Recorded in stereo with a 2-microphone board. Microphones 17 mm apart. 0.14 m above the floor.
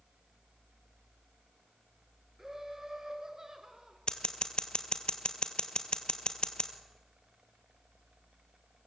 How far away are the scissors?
About 1.9 m.